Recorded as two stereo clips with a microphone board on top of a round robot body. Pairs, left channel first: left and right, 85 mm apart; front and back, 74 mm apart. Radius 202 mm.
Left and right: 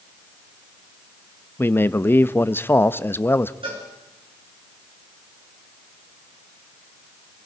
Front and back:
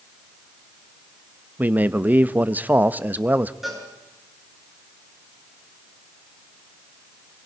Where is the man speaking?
135° left, 1.0 m.